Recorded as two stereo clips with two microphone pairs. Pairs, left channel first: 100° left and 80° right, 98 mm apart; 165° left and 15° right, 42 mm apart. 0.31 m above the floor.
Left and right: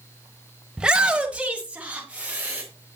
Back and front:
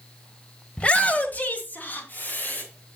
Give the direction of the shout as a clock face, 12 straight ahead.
5 o'clock.